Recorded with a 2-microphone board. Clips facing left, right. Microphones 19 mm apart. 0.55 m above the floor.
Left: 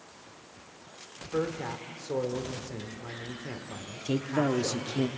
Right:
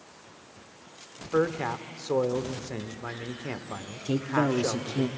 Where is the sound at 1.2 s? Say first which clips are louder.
Right 5 dB; 50° right (ahead or behind), 1.1 m.